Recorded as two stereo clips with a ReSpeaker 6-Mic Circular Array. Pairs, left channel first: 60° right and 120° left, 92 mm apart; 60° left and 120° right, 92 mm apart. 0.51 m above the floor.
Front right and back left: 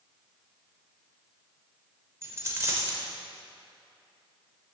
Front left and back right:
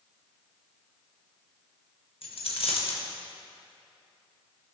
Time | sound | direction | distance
2.2 | a dropped coin | 60° left | 0.7 m